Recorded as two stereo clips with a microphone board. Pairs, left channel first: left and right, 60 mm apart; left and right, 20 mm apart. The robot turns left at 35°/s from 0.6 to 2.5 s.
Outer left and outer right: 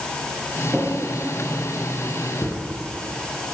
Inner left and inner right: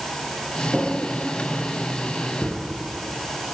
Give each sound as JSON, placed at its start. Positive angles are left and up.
{"t": 0.7, "sound": "a drawer", "side_deg": 5, "distance_m": 9.0}